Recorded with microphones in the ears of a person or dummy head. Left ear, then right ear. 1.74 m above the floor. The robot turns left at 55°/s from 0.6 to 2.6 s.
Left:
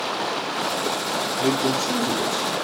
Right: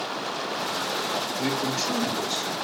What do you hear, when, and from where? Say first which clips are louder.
1.4 s a man speaking: left 5 dB; 40° right, 0.9 m; by 2.5 s 100° right, 0.9 m